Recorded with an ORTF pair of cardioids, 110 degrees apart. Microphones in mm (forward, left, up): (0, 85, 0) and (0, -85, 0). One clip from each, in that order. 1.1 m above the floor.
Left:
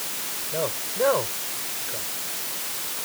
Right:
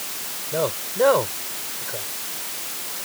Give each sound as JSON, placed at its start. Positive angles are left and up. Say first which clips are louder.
{"t": 0.5, "sound": "a man speaking", "louder": "right 4 dB", "azimuth_deg": -30}